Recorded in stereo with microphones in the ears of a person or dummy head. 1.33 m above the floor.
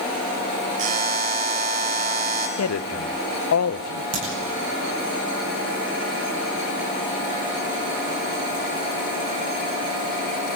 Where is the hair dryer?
I don't hear a hair dryer.